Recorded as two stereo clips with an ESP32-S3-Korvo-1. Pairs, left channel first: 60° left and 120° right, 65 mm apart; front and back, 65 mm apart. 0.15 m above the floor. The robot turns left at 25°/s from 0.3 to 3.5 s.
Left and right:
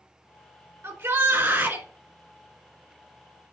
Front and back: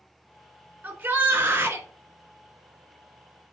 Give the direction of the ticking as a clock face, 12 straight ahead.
I don't hear ticking.